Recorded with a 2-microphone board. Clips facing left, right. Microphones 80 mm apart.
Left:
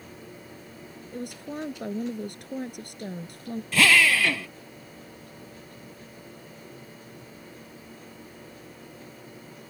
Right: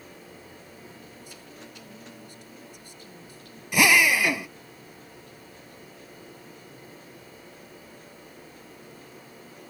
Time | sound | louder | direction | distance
1.1 | a woman speaking | left 11 dB | 65° left (ahead or behind) | ?
3.7 | a drill | right 1 dB | 15° right (ahead or behind) | ?